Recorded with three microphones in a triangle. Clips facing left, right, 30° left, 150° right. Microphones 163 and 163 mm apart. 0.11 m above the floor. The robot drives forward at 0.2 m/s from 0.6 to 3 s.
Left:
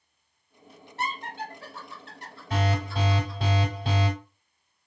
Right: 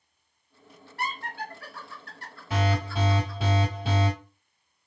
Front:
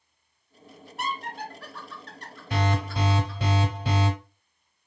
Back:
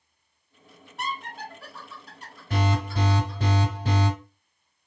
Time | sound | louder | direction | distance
1.0 | laughter | left 1 dB, front 1 dB | 115° left | 1.2 m
2.5 | an alarm | even, even | 170° right | 2.0 m